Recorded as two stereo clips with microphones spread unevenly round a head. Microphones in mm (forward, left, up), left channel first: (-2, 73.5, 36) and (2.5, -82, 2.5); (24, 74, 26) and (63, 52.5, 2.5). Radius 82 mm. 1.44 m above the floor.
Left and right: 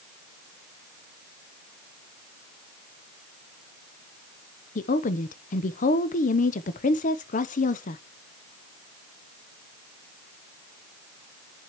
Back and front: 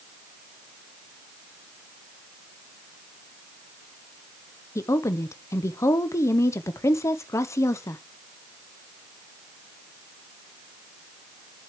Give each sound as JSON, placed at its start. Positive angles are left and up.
{"t": 4.8, "sound": "a woman speaking", "azimuth_deg": 135, "distance_m": 0.7}